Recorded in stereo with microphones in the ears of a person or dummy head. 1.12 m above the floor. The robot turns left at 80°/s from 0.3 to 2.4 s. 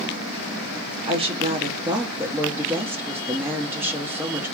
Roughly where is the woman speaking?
Right.